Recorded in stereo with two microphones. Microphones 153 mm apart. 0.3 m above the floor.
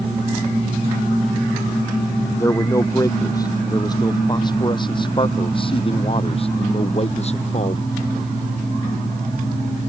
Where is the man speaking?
20° left (ahead or behind); by 7.9 s 45° left (ahead or behind).